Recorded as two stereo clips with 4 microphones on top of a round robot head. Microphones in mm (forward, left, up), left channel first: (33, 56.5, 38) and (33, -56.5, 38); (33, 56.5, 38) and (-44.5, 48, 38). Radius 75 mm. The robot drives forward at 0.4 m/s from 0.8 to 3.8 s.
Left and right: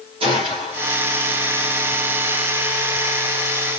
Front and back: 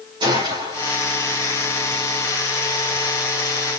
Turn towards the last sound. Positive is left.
turn(degrees=-145)